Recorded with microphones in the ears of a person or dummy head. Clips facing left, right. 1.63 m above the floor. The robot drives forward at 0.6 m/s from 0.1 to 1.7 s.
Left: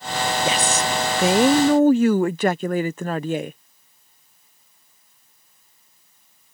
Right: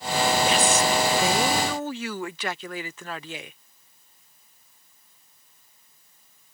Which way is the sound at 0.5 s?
65° left (ahead or behind).